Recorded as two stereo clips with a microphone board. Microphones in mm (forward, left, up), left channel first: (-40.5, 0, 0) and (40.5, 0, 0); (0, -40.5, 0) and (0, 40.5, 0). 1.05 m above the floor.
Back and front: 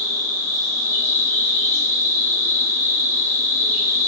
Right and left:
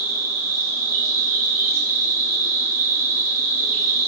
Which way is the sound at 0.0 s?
130° left.